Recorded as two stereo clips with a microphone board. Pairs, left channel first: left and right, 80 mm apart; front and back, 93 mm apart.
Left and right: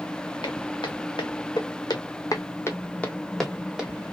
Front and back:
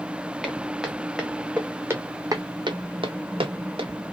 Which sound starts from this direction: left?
Footsteps, at 0.4 s.